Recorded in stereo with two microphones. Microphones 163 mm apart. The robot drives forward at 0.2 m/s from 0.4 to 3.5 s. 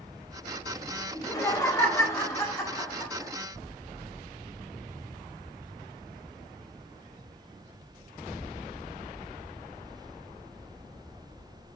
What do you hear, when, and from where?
1.1 s laughter: 20° left (ahead or behind), 1.2 m; by 3.3 s 15° left (ahead or behind), 1.6 m